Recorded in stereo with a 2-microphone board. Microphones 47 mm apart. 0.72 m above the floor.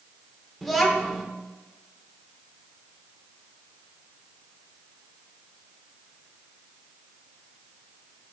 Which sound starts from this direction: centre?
A child speaking, at 0.6 s.